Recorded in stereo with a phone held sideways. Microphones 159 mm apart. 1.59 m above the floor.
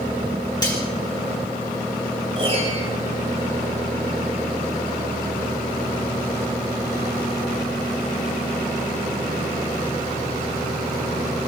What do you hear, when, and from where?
0.6 s cutlery clinking: 25° left (ahead or behind), 3.5 m
2.4 s a piano: 40° right (ahead or behind), 4.5 m